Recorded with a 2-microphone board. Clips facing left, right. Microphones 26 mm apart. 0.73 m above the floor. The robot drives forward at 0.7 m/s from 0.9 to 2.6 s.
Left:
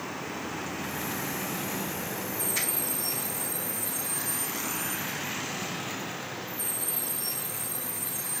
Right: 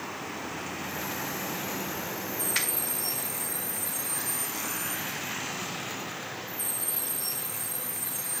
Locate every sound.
2.5 s a finger snap: 55° right (ahead or behind), 1.8 m